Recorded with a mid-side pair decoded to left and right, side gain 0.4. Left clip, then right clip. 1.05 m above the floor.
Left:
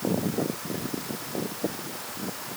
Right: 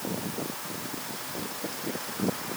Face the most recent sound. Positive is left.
No sound to turn to.